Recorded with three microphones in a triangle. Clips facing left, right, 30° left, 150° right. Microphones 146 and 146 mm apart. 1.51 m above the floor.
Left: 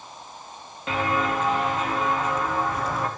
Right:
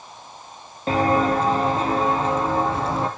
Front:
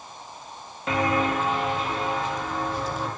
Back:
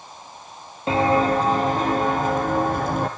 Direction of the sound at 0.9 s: 110° right.